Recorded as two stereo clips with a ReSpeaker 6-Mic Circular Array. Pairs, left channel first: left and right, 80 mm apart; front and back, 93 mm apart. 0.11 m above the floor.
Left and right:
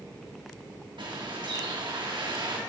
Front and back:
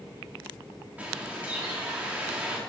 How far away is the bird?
About 2.5 m.